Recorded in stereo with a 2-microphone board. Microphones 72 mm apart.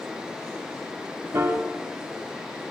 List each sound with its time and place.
1.3 s a piano: 35° right (ahead or behind), 0.5 m